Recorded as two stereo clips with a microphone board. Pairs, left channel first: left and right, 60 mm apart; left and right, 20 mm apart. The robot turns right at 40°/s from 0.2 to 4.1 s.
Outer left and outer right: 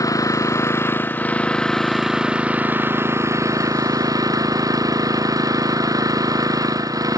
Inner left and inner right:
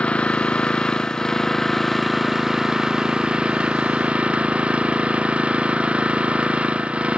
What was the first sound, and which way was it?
An engine running, 110° left.